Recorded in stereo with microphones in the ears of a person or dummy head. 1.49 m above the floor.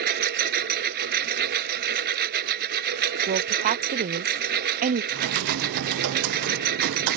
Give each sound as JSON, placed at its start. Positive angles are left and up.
{"t": 0.0, "sound": "a lawn mower", "side_deg": -55}
{"t": 3.3, "sound": "a woman speaking", "side_deg": -45}
{"t": 5.1, "sound": "typing on a keyboard", "side_deg": -70}